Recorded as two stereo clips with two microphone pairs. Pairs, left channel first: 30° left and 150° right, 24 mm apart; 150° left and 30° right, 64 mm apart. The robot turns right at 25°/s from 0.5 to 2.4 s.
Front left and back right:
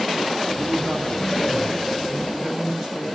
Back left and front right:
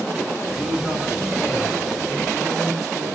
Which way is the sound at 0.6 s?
150° right.